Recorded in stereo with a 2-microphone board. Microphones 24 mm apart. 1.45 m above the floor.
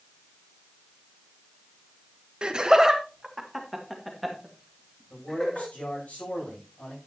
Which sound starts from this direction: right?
Laughter, at 2.4 s.